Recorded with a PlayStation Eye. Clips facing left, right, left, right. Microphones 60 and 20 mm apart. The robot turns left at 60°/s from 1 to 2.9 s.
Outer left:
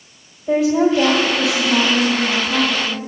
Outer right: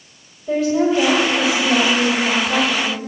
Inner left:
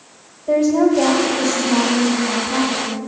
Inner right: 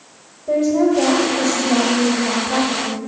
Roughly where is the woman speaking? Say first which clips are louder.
Outer left 2 dB, inner left 1 dB; ahead.